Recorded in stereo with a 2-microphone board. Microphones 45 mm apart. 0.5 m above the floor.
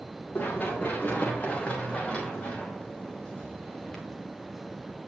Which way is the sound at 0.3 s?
40° left (ahead or behind).